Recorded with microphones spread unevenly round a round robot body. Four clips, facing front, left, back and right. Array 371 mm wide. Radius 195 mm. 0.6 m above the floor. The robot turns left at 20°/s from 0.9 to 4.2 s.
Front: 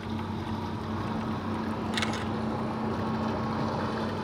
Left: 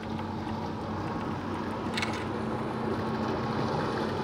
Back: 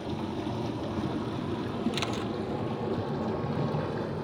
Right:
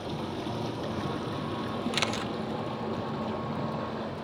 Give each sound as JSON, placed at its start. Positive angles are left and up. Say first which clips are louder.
{"t": 0.0, "sound": "running water", "louder": "even, back 1 dB", "azimuth_deg": -145, "distance_m": 1.3}
{"t": 1.9, "sound": "a camera shutter", "louder": "right 1 dB, front 1 dB", "azimuth_deg": -70, "distance_m": 0.7}